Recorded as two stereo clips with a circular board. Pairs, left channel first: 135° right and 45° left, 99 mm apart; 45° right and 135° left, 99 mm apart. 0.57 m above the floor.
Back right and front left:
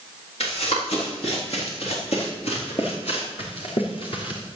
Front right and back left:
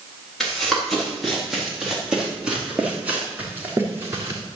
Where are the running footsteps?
130° right, 6 m; by 4.4 s 165° right, 3 m.